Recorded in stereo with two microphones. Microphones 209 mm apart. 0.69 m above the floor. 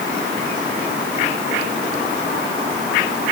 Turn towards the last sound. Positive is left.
No sound to turn to.